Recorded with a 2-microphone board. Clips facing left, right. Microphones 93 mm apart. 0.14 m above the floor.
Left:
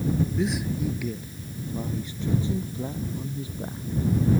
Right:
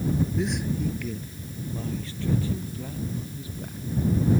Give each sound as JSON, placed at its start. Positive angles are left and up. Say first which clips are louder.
{"t": 0.4, "sound": "a man speaking", "louder": "left 1 dB", "side_deg": 0}